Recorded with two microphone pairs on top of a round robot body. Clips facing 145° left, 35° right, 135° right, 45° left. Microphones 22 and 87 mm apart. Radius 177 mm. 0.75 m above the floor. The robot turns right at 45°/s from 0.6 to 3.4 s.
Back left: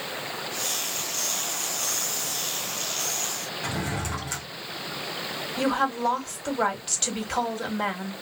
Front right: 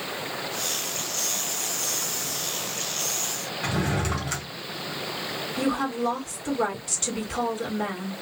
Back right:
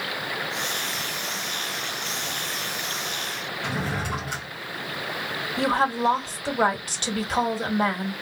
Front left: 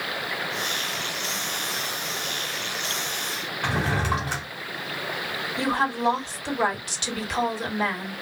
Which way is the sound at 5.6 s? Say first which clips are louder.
Back left 2 dB, back right 2 dB; 175° right.